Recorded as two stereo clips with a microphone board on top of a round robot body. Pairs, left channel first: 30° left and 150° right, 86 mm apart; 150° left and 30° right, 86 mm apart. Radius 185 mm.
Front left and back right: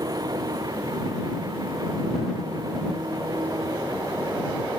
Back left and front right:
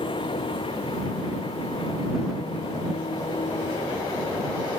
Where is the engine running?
165° left.